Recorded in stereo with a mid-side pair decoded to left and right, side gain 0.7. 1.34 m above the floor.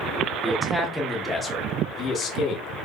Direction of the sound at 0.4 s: 10° right.